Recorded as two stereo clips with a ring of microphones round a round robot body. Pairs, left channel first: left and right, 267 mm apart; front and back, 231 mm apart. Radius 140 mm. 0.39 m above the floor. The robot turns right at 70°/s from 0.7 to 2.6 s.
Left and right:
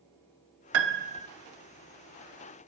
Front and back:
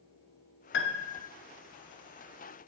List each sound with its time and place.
0.7 s a piano: 50° right, 0.6 m; by 1.3 s 10° right, 0.6 m